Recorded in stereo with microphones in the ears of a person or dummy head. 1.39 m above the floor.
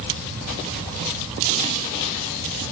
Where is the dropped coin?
No dropped coin in this recording.